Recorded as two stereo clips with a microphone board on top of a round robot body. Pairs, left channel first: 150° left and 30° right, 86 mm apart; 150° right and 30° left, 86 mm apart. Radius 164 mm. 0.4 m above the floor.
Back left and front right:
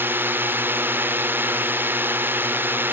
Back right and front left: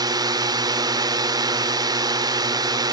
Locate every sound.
0.0 s a drone: 30° left